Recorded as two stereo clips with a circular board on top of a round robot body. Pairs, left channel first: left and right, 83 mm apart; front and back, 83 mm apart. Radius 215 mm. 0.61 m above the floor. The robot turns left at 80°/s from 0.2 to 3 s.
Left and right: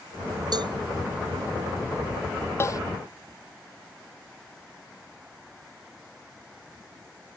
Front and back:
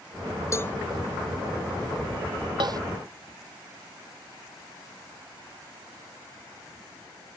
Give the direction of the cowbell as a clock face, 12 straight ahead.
2 o'clock.